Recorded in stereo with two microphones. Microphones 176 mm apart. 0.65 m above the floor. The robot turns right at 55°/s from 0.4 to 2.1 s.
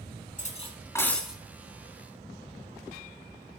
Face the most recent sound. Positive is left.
turn(degrees=-135)